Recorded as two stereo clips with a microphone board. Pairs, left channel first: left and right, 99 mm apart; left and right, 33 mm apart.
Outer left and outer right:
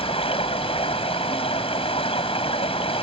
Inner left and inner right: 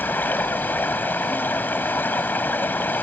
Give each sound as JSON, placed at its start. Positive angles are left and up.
{"t": 0.0, "sound": "running water", "side_deg": 75}